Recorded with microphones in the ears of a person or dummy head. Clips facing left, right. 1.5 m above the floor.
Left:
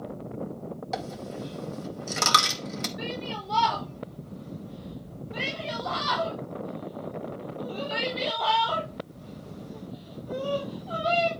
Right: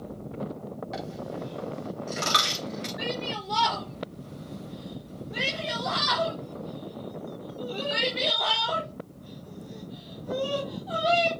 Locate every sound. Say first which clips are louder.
0.9 s a dropped coin: left 1 dB; 60° left (ahead or behind), 2 m
3.0 s a shout: right 2 dB; 10° right (ahead or behind), 3.5 m